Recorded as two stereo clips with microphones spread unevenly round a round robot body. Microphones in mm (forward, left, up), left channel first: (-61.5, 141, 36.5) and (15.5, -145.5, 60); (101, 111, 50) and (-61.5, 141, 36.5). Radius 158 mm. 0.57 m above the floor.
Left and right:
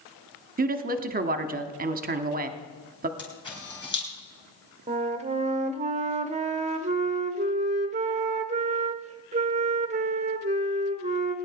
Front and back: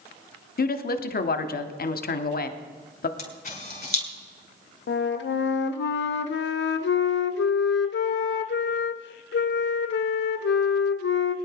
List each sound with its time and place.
0.6 s a woman speaking: 15° right, 1.0 m
3.2 s a camera shutter: 30° left, 4.5 m
4.9 s a flute: 5° right, 0.6 m